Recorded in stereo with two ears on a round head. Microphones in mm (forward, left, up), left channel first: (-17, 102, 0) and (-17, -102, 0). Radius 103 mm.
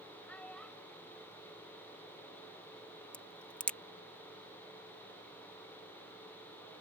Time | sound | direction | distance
0.3 | a child speaking | 5° left (ahead or behind) | ?
3.1 | a crack | 5° left (ahead or behind) | ?